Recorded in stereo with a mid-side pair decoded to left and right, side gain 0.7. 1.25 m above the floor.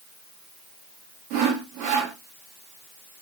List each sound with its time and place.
1.3 s sawing: 70° right, 2.5 m